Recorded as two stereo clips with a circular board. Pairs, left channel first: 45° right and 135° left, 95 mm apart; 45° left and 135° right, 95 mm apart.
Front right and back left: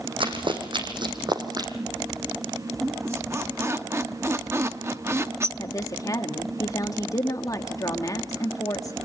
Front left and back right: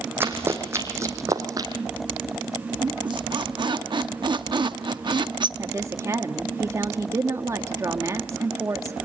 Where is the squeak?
165° right, 0.8 m.